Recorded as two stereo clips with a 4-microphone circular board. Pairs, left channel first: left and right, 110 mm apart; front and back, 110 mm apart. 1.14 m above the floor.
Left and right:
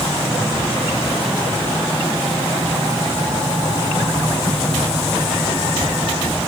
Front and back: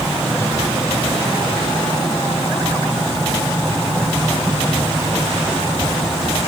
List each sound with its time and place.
Only background noise.